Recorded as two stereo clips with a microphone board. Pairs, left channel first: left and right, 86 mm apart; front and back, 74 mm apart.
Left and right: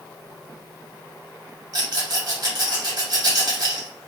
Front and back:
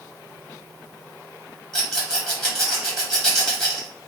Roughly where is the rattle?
Right.